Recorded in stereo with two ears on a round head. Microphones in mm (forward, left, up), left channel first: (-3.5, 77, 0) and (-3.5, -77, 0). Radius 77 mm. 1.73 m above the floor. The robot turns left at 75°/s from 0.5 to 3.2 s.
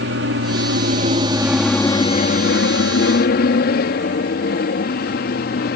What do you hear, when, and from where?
0.0 s an aircraft: 70° right (ahead or behind); by 5.8 s 60° left (ahead or behind)